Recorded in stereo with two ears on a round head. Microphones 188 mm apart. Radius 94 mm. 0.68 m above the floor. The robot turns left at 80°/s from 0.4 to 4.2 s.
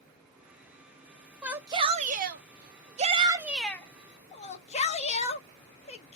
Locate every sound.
1.4 s a shout: 5° right, 0.6 m; by 6.2 s 130° left, 0.6 m